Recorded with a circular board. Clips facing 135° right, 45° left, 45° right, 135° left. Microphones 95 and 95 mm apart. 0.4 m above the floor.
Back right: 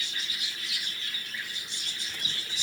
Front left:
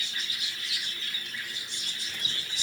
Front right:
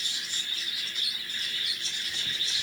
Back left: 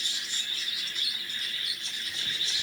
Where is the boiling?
I don't hear boiling.